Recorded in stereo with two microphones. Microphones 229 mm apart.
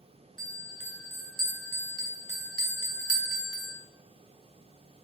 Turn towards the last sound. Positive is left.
turn(degrees=-70)  # may be behind; listen again after turning